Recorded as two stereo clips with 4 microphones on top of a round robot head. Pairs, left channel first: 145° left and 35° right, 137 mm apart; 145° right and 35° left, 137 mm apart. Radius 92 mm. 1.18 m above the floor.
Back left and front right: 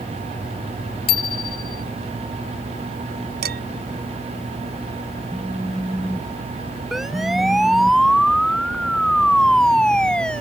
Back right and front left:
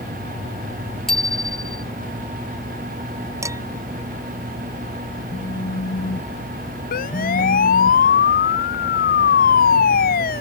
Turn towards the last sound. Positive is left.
turn(degrees=-130)